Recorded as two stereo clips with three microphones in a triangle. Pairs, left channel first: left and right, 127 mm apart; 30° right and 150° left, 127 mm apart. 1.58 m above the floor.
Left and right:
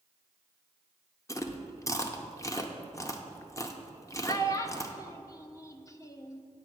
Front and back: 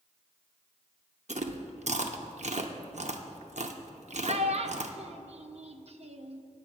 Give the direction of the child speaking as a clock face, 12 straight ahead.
7 o'clock.